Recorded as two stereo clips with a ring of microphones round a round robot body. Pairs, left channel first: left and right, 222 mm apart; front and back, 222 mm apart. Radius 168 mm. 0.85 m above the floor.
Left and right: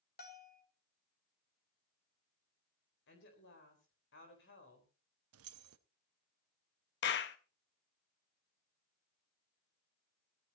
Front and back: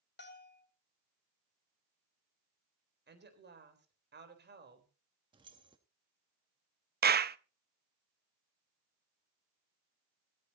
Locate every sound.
0.2 s a bell: 40° left, 2.5 m
3.1 s a woman speaking: 140° left, 4 m
5.3 s keys jangling: 105° right, 0.8 m
7.0 s a clap: 135° left, 0.8 m